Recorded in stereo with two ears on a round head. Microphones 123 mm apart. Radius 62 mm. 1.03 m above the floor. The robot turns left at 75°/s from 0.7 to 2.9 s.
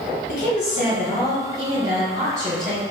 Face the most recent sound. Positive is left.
turn(degrees=-90)